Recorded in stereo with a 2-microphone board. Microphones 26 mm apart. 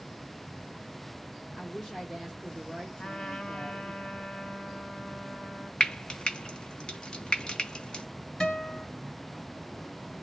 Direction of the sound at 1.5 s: 15° left (ahead or behind).